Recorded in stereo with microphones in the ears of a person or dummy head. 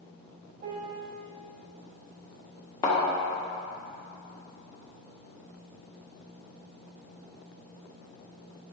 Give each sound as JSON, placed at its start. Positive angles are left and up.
{"t": 0.6, "sound": "a piano", "side_deg": -30, "distance_m": 0.7}
{"t": 2.8, "sound": "a thud", "side_deg": 10, "distance_m": 2.0}